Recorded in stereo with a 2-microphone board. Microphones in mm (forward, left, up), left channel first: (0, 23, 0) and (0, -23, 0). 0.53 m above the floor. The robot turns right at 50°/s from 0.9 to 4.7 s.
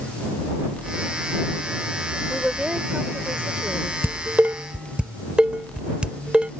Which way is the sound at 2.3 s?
175° right.